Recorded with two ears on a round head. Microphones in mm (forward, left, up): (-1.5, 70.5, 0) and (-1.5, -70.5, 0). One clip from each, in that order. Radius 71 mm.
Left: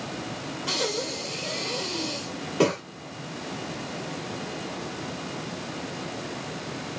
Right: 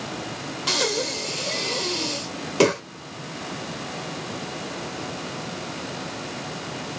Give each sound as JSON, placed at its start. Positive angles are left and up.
{"t": 0.7, "sound": "breathing", "side_deg": -75, "distance_m": 1.6}